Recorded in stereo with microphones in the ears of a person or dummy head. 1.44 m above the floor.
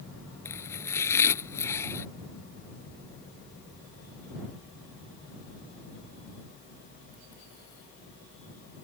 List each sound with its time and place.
0.5 s chopping: 15° left (ahead or behind)